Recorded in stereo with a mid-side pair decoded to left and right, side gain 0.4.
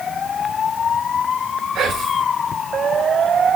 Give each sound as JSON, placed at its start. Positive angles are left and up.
{"t": 1.8, "sound": "whispering", "azimuth_deg": -60, "distance_m": 1.6}